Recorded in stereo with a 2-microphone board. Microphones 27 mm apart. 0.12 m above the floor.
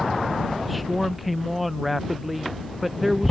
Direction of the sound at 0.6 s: Centre (ahead or behind).